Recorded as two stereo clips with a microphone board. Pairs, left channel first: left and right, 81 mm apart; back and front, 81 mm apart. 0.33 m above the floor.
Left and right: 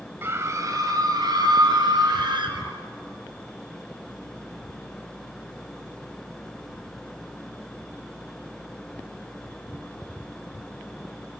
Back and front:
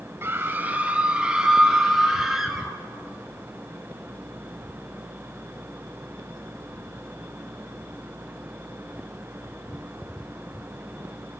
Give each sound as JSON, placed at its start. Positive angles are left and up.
{"t": 0.2, "sound": "a scream", "azimuth_deg": -45, "distance_m": 1.7}